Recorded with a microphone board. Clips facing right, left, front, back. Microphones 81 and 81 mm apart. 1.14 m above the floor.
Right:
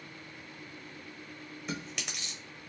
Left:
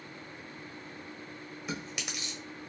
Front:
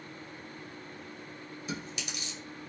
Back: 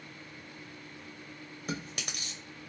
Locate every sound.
1.7 s chewing: 175° left, 0.7 m